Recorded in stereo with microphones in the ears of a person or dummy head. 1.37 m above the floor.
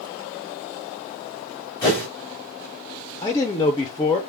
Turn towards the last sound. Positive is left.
turn(degrees=25)  # may be behind; listen again after turning